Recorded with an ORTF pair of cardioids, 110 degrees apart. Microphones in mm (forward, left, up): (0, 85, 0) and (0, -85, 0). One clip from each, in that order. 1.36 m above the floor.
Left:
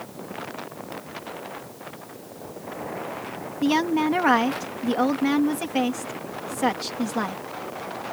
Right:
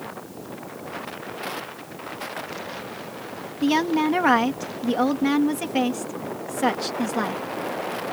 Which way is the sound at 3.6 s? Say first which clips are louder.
Right 1 dB; 5° right.